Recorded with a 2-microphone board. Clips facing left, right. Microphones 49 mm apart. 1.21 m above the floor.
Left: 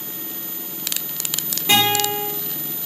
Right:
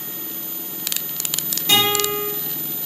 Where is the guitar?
15° left (ahead or behind), 4 m.